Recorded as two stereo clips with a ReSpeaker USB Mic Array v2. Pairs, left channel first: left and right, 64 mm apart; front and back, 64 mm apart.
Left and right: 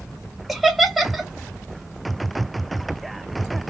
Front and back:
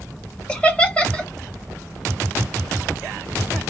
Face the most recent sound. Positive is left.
turn(degrees=-5)